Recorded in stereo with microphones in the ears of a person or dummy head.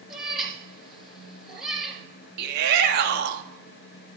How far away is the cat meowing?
About 2.5 m.